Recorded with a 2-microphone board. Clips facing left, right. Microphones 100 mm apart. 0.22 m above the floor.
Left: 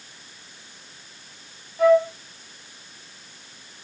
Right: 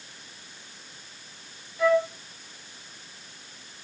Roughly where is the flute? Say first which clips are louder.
Left 6 dB; left.